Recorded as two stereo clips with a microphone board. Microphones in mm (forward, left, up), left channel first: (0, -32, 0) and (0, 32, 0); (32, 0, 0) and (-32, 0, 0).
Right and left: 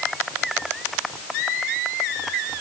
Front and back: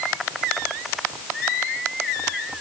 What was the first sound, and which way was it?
Only background noise.